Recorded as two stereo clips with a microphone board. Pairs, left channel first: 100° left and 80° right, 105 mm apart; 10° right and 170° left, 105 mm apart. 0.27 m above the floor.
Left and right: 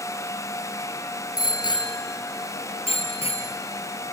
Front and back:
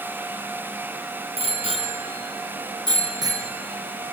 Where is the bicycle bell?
150° left, 3 m; by 3.5 s 115° left, 3.5 m.